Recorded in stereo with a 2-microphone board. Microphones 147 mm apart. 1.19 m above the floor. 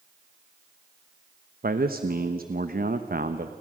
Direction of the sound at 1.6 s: 85° right.